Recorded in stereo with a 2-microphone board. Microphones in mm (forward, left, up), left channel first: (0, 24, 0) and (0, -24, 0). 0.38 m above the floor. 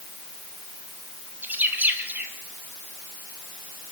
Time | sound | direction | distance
1.4 | a bird | 35° right (ahead or behind) | 2.5 m